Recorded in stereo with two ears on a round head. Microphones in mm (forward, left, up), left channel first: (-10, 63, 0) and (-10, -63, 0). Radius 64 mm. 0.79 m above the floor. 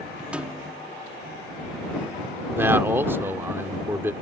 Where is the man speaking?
15° right (ahead or behind).